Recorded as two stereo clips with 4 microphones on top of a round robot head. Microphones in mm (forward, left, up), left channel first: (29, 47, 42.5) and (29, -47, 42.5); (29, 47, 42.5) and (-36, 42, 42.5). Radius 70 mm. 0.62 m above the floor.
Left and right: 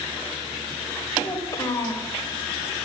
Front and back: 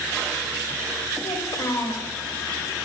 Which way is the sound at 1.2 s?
35° left.